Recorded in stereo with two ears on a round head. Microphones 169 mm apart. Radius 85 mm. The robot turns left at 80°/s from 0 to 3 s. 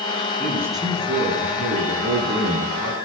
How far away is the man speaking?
About 9 m.